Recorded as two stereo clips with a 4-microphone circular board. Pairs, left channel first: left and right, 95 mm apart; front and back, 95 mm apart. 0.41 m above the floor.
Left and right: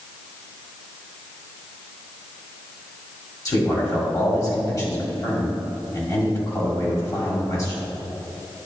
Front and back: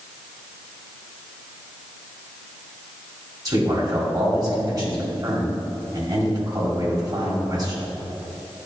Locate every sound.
3.5 s a man speaking: 135° left, 2 m